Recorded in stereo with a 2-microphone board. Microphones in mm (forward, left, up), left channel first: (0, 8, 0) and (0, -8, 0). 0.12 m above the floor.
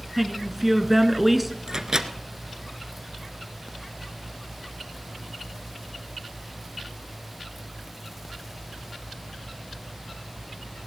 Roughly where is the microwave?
Right.